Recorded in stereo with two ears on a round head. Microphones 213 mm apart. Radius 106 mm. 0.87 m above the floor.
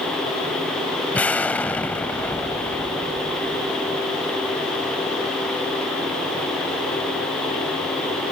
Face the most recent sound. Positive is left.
turn(degrees=5)  # may be behind; listen again after turning